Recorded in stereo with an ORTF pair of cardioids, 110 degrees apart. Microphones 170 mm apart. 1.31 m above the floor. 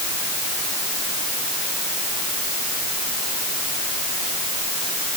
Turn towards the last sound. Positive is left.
No sound to turn to.